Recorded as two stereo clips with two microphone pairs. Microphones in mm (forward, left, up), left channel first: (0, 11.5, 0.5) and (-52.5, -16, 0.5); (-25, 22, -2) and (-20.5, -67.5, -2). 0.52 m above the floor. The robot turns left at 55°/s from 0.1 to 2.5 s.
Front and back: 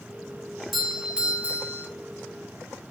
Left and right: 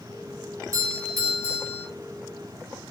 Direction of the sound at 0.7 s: 65° right.